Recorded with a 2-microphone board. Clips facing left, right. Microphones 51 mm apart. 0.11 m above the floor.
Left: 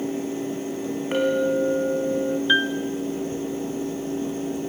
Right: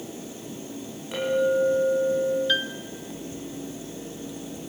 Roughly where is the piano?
Left.